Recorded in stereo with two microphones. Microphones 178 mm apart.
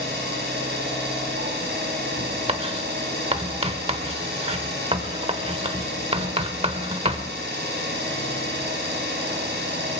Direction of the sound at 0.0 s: 85° right.